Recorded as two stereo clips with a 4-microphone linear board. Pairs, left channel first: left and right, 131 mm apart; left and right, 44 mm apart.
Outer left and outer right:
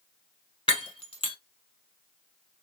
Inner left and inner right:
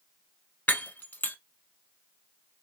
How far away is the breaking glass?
About 0.6 m.